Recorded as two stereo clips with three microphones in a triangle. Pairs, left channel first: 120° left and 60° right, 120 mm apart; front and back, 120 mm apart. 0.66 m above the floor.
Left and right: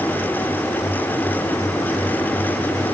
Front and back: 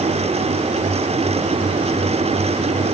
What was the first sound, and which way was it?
Only background noise.